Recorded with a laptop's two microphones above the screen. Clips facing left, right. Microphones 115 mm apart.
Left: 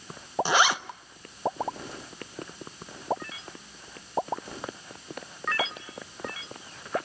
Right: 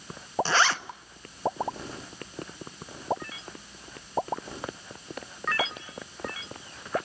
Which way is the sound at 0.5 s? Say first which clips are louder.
Left 2 dB; 15° left (ahead or behind).